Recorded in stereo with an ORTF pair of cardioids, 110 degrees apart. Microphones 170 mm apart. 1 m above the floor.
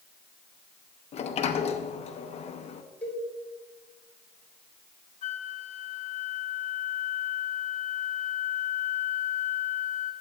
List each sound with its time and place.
1.1 s a sliding door: 40° left, 0.8 m
3.0 s a cowbell: 10° left, 4 m
5.2 s a flute: 45° left, 1.0 m